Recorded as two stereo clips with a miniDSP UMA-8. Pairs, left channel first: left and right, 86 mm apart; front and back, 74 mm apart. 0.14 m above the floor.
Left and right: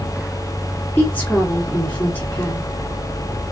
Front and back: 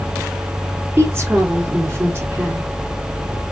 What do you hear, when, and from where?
1.0 s a woman speaking: 150° left, 1.9 m